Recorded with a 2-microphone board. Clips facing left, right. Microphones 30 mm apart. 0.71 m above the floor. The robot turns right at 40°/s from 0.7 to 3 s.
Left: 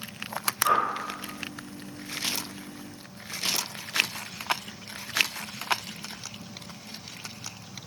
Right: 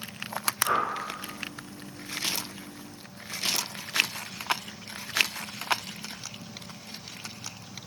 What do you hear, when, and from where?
0.6 s a whoosh: 20° left (ahead or behind), 1.1 m; by 0.9 s 15° left (ahead or behind), 1.1 m